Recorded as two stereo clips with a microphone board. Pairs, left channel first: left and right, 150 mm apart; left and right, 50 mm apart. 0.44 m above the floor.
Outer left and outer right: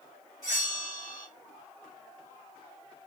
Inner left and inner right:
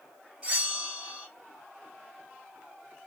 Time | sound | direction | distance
0.4 | a bell | 25° right (ahead or behind) | 2.0 m